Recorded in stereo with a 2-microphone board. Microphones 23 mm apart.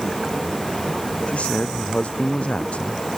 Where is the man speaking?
65° left (ahead or behind).